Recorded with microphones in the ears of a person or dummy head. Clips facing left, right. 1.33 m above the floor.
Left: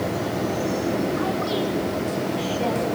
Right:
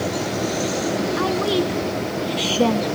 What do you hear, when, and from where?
1.2 s a woman speaking: 80° right, 3 m